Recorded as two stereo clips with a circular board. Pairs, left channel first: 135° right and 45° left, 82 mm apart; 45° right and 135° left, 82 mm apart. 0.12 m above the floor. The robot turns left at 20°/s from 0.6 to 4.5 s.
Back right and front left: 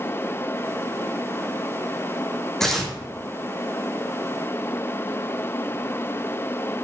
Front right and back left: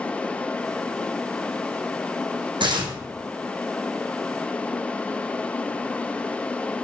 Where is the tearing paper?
140° left, 1.5 m; by 2.9 s 135° left, 1.5 m.